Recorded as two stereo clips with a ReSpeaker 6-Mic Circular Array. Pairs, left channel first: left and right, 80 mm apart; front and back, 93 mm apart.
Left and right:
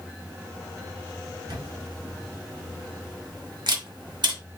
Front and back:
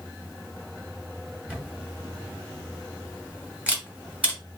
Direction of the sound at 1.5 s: 105° right.